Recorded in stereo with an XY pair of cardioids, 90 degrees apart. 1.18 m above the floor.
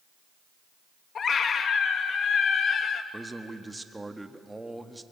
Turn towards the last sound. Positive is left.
turn(degrees=-15)